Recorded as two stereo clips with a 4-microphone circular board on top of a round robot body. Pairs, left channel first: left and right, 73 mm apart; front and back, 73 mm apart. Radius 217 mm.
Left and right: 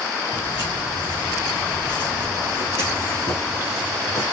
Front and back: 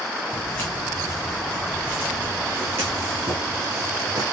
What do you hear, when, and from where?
0.3 s footsteps: 55° left, 1.3 m; by 4.2 s 140° left, 2 m